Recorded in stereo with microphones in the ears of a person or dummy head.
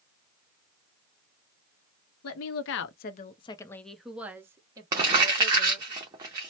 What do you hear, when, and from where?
2.2 s a woman speaking: 70° left (ahead or behind), 0.7 m; by 5.9 s 30° right (ahead or behind), 1.5 m
4.9 s crumpling: 15° right (ahead or behind), 0.6 m